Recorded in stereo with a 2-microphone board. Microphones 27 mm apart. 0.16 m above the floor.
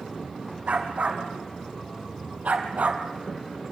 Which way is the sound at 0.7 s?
70° right (ahead or behind).